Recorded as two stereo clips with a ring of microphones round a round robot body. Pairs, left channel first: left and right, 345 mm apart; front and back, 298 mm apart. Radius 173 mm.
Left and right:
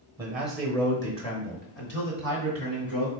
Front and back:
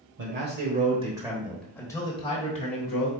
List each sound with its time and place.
0.2 s a man speaking: 170° right, 1.4 m; by 3.1 s 50° left, 1.9 m